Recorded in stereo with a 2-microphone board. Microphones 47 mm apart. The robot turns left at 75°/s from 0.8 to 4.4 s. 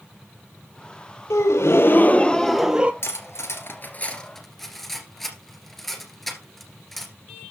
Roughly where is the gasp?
Left.